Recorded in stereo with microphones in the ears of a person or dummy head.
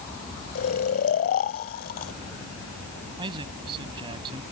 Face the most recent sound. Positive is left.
turn(degrees=-25)  # may be behind; listen again after turning